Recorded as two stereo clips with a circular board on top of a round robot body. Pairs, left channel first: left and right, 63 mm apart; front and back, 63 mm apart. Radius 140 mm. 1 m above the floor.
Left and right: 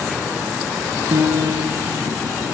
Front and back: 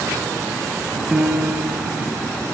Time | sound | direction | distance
1.1 | a piano | 100° right | 5 m